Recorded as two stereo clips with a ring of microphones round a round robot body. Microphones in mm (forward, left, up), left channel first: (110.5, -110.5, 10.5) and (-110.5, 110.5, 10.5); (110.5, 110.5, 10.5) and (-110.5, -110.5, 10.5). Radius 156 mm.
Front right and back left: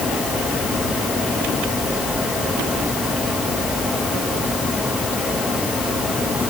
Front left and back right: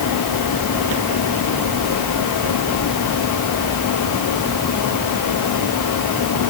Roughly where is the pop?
No pop in this recording.